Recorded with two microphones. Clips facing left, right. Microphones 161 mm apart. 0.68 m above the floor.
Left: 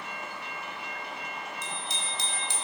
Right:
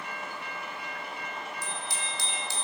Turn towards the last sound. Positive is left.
turn(degrees=20)  # may be behind; listen again after turning